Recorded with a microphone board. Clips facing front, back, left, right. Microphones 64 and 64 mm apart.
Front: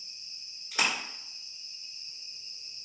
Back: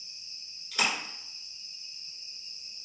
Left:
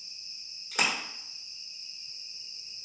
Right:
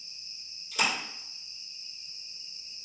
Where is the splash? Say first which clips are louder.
Even, even; 65° left, 1.2 m.